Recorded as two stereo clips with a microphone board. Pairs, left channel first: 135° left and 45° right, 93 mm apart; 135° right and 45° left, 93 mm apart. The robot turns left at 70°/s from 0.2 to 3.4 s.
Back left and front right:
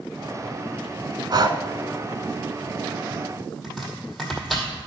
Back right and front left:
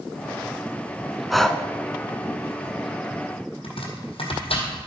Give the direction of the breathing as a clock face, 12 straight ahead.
1 o'clock.